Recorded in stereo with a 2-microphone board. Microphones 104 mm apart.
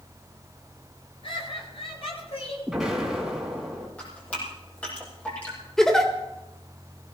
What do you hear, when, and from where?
1.2 s laughter: 55° left (ahead or behind), 9.5 m; by 2.6 s 70° left (ahead or behind), 9.5 m
2.7 s an explosion: 5° right (ahead or behind), 5 m
4.0 s dripping: 10° left (ahead or behind), 5.5 m
5.8 s a giggle: 5° left (ahead or behind), 2 m